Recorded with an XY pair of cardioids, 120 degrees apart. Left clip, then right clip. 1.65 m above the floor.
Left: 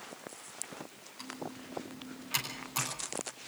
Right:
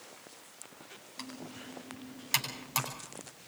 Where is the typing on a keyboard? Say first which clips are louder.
Left 2 dB; 50° right, 9.5 m.